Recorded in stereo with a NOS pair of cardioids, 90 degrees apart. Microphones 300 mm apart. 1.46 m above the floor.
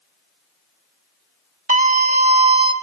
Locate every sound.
1.7 s a scream: 25° right, 5 m; by 2.7 s 15° right, 5 m